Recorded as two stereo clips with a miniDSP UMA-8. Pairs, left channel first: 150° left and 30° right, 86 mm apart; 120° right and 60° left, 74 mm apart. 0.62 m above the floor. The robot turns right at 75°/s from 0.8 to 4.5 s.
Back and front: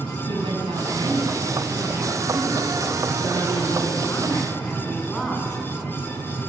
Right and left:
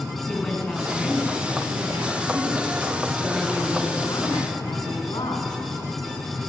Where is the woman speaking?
40° right, 6.5 m; by 5.6 s 120° right, 6.5 m.